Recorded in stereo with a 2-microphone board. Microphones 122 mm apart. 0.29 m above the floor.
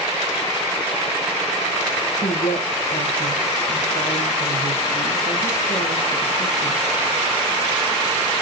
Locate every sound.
2.2 s a woman speaking: 80° left, 9 m